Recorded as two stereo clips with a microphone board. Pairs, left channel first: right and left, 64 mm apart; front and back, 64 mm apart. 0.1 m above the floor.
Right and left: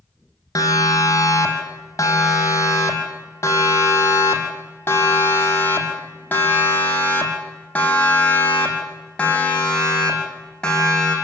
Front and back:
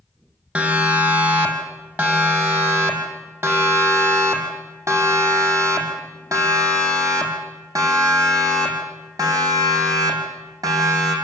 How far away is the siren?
About 5 m.